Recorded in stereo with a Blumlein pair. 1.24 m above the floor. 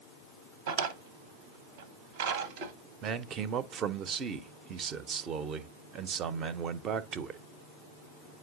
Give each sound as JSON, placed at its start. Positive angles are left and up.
{"t": 0.7, "sound": "a drawer", "azimuth_deg": -55, "distance_m": 0.8}
{"t": 3.0, "sound": "a man speaking", "azimuth_deg": -30, "distance_m": 0.6}